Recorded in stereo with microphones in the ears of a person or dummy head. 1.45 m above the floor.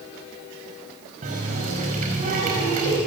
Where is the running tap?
40° right (ahead or behind), 5 m.